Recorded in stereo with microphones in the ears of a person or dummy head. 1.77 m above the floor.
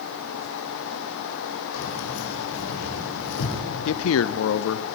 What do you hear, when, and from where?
1.7 s keys jangling: 75° left (ahead or behind), 5 m; by 3.6 s 70° left (ahead or behind), 3.5 m
3.9 s a man speaking: 75° left (ahead or behind), 0.7 m